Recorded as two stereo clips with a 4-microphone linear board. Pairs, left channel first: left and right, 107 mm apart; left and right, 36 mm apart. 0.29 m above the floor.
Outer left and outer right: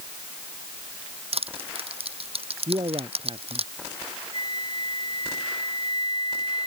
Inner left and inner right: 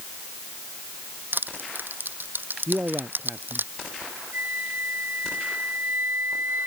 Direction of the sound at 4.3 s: 65° right (ahead or behind).